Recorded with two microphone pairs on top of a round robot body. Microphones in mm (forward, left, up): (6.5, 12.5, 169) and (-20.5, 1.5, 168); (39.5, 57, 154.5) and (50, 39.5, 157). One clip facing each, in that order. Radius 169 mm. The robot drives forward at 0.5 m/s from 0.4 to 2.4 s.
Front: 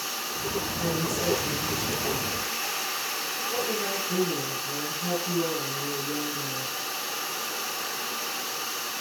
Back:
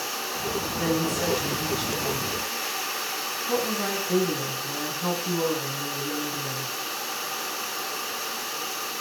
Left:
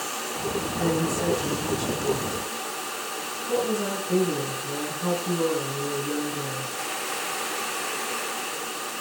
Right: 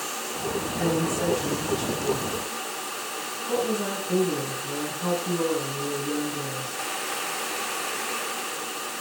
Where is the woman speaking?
115° right, 5 m; by 6.8 s 125° right, 5 m.